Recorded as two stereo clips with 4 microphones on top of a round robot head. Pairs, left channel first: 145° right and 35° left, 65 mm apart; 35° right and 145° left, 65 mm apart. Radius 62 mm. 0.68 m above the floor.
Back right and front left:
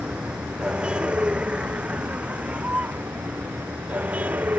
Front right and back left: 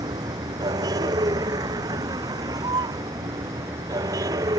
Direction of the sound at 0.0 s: 110° left.